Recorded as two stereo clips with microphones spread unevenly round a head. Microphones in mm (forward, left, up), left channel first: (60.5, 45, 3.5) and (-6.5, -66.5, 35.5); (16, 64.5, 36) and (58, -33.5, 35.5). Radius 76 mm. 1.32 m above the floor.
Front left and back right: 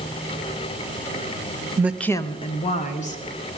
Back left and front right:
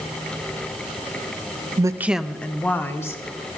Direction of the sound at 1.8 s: 45° right.